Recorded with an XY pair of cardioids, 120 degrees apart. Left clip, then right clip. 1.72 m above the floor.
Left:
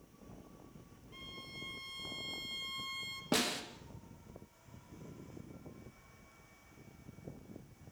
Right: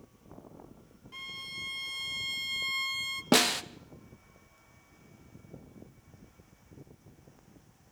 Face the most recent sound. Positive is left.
turn(degrees=-50)